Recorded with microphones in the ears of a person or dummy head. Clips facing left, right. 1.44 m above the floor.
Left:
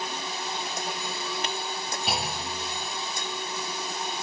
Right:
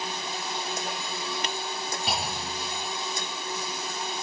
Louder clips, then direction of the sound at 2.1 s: Left 2 dB; 5° left (ahead or behind).